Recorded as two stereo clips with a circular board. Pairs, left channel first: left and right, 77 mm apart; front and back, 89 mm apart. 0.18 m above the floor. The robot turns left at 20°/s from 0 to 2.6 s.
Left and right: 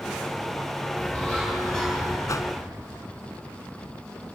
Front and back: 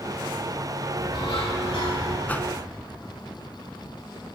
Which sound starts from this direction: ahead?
A bird, at 1.0 s.